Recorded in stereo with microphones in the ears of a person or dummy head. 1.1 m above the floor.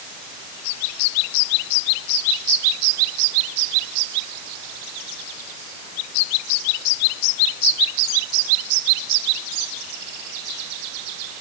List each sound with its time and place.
Only background noise.